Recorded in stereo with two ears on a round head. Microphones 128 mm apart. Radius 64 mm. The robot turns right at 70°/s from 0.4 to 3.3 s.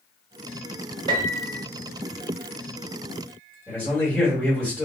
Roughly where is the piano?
Behind right.